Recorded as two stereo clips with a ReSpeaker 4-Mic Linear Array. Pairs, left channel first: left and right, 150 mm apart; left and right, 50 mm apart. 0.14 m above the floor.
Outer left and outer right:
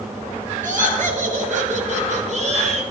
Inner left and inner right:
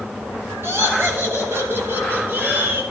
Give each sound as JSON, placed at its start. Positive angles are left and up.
{"t": 0.6, "sound": "laughter", "side_deg": -60, "distance_m": 2.0}